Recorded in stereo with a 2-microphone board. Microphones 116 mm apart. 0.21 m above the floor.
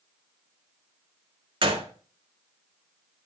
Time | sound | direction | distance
1.6 | a gunshot | 50° right (ahead or behind) | 1.5 m